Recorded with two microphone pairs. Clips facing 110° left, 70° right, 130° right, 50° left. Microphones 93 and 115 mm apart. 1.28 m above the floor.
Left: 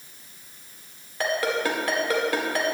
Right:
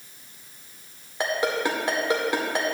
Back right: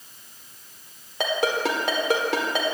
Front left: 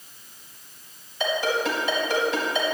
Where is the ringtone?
135° right, 1.7 m.